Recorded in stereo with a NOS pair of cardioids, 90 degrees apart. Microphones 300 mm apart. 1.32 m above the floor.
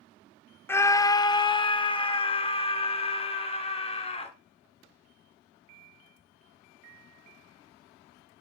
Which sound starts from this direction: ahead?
A scream, at 0.7 s.